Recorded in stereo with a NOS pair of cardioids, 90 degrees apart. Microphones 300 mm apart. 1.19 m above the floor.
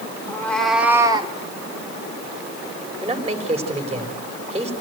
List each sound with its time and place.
0.3 s a cat meowing: 10° left, 2 m; by 1.3 s 20° right, 1.8 m
3.0 s a man speaking: 20° right, 4 m